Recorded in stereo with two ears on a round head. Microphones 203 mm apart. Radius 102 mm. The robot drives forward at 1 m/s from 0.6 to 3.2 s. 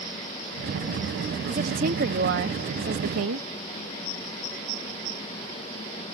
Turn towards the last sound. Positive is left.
turn(degrees=-65)  # may be behind; listen again after turning